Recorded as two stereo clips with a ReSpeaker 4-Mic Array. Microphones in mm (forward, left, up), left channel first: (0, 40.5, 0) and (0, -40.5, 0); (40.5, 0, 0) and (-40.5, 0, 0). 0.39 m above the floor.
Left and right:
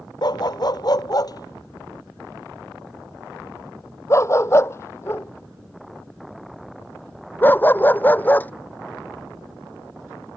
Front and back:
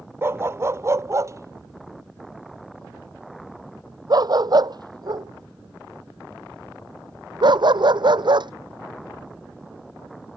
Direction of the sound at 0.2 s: 120° left.